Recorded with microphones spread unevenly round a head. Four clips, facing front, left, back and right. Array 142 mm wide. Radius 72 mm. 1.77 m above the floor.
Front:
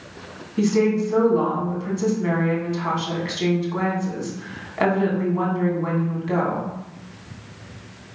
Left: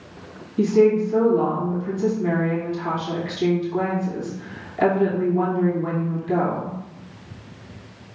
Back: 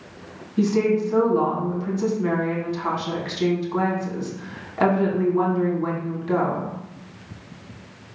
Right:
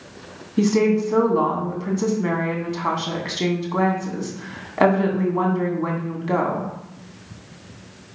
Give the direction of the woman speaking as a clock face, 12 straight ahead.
3 o'clock.